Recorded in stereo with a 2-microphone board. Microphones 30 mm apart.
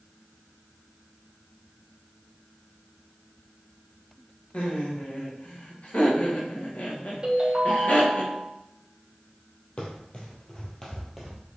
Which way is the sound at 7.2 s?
25° right (ahead or behind).